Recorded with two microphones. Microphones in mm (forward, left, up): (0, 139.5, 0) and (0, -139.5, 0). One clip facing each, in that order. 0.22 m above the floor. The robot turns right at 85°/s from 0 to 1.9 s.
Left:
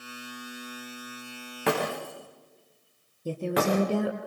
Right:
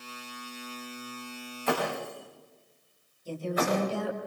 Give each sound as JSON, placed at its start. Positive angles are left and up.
{"t": 1.7, "sound": "breaking glass", "side_deg": 75, "distance_m": 9.0}
{"t": 3.2, "sound": "a woman speaking", "side_deg": 65, "distance_m": 5.0}